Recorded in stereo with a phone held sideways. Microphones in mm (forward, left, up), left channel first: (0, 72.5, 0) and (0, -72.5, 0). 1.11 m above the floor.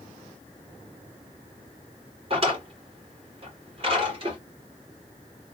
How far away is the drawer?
About 1.8 m.